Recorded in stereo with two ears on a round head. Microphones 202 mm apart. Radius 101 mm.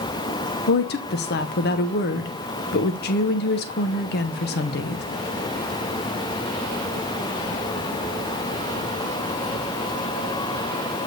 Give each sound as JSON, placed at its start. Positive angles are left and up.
{"t": 0.7, "sound": "a woman speaking", "side_deg": 45, "distance_m": 0.5}